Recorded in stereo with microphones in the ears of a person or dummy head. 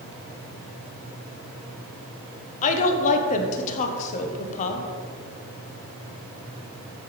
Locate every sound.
2.6 s a woman speaking: 40° left (ahead or behind), 1.3 m